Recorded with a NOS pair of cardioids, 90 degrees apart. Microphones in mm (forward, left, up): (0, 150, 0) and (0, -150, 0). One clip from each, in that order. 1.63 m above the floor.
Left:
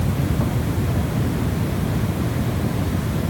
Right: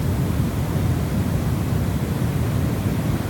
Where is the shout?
I don't hear a shout.